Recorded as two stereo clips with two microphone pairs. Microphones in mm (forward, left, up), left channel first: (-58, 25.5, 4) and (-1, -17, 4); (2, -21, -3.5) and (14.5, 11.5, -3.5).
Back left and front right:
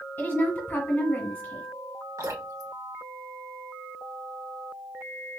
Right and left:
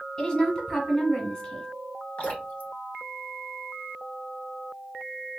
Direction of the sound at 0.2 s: 170° right.